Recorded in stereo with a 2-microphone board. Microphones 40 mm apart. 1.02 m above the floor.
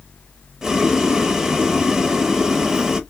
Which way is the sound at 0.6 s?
10° right (ahead or behind).